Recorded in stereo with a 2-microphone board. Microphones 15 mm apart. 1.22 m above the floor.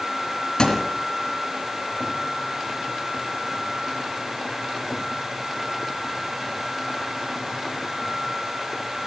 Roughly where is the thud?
Left.